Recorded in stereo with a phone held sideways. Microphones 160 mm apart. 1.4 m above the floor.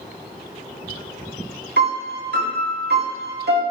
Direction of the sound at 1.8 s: 75° right (ahead or behind).